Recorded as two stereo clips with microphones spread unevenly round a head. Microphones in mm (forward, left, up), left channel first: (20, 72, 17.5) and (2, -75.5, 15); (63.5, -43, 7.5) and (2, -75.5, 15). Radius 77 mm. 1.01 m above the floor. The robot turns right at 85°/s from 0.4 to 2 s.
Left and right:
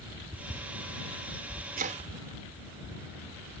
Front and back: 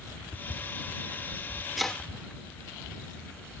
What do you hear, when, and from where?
1.8 s chopping: 65° right; by 3.6 s 45° right